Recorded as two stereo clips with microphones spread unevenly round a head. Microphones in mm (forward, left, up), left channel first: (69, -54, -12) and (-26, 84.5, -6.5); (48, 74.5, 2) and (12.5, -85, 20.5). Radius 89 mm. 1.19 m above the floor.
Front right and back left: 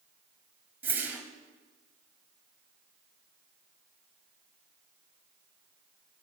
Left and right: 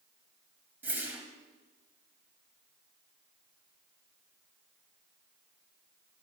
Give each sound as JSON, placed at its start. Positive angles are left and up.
{"t": 0.8, "sound": "a whoosh", "azimuth_deg": -165, "distance_m": 1.2}